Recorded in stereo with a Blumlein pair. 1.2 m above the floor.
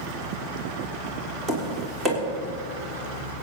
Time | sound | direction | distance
1.5 | tapping | 15° right | 3.5 m